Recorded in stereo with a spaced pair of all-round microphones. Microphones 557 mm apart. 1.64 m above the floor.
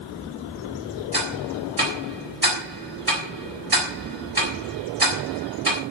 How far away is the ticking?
About 4 m.